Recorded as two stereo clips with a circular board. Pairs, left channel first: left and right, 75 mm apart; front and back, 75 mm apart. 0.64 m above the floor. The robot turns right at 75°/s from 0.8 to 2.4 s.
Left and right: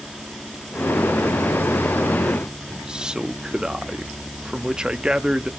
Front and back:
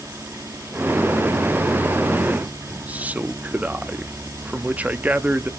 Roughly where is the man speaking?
Behind right.